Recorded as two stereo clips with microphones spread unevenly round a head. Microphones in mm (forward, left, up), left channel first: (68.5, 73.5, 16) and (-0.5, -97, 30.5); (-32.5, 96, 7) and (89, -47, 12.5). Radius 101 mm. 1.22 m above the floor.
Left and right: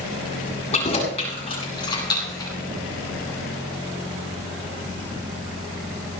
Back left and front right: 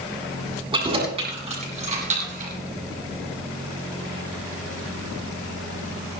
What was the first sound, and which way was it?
Keys jangling, 10° left.